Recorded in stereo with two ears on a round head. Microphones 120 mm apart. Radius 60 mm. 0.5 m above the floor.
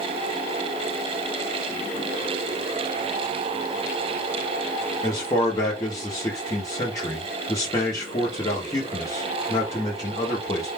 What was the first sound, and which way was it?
A man speaking, 25° left (ahead or behind).